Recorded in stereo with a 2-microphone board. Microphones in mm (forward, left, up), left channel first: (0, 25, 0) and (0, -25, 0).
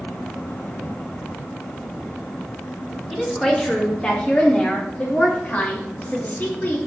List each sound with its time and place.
3.1 s a woman speaking: 5° left (ahead or behind), 3 m; by 6.8 s 40° left (ahead or behind), 4 m